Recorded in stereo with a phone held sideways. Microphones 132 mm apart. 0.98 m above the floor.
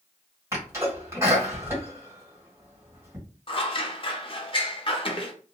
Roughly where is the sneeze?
Right.